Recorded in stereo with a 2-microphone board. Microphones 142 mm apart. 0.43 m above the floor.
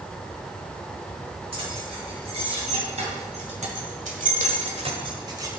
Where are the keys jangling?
40° right (ahead or behind), 3.5 m; by 5.5 s 25° right (ahead or behind), 1.5 m.